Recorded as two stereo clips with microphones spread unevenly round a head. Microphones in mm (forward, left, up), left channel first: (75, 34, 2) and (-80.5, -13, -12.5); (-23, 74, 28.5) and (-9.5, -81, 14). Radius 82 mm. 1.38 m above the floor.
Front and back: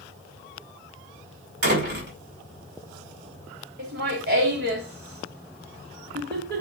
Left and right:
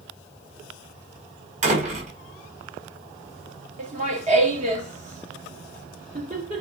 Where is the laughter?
130° right, 3 m.